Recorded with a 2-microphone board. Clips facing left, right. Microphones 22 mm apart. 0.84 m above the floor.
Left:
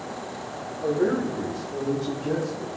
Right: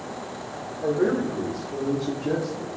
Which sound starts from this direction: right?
A man speaking, at 0.8 s.